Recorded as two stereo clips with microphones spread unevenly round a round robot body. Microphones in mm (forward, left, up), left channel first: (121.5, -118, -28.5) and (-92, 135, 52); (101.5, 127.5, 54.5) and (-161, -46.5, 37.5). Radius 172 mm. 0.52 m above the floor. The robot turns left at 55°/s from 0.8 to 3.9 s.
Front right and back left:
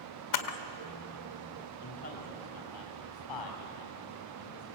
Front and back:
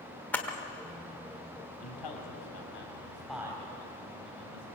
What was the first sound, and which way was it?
A camera shutter, 55° right.